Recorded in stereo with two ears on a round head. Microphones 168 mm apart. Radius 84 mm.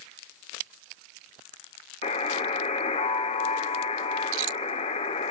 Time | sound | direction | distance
2.0 | a buzzer | 30° left (ahead or behind) | 0.7 m